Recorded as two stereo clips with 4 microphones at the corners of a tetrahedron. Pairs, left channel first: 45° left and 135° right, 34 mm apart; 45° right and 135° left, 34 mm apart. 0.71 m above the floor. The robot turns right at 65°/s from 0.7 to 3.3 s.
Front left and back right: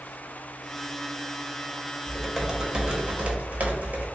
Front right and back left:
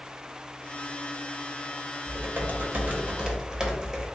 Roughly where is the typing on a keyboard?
Behind left.